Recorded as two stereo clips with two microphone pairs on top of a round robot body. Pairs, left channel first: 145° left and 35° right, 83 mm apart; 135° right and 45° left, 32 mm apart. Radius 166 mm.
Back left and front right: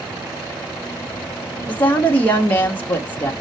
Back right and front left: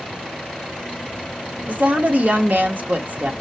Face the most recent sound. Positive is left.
turn(degrees=70)